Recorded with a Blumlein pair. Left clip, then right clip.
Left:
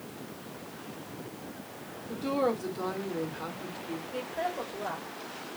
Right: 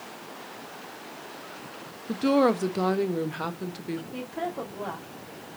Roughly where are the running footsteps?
No running footsteps in this recording.